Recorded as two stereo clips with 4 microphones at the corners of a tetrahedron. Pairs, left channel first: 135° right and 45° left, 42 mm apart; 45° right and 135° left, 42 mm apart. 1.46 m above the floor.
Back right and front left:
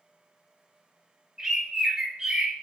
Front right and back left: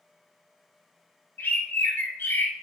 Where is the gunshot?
No gunshot in this recording.